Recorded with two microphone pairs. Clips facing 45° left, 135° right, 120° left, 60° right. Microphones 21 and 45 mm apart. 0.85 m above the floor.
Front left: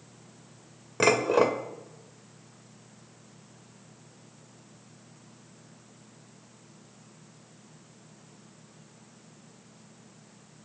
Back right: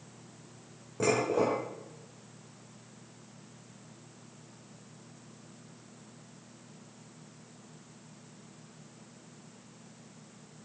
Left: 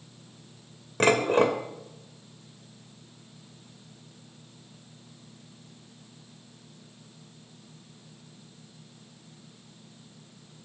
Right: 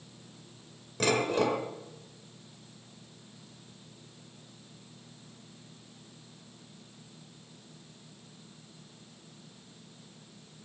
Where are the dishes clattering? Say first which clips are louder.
Front left 5 dB, left 6 dB; 75° left, 1.8 m.